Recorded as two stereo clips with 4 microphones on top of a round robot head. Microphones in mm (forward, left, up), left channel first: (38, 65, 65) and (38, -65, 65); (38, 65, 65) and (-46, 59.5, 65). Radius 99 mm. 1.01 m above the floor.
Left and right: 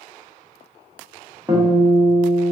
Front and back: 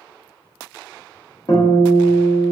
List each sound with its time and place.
1.5 s a guitar: 30° right, 1.0 m